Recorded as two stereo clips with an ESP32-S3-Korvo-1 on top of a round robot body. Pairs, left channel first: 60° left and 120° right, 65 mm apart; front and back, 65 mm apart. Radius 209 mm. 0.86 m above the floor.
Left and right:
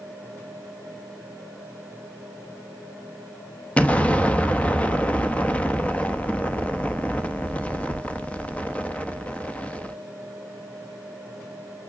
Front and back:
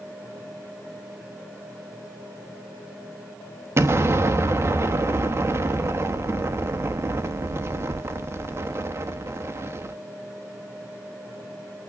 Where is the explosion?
135° left, 1.1 m.